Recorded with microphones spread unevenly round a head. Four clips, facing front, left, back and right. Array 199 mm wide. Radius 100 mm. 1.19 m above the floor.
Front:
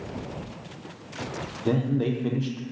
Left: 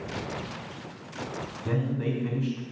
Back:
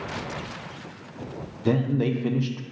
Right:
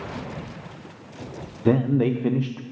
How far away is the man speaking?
About 0.6 m.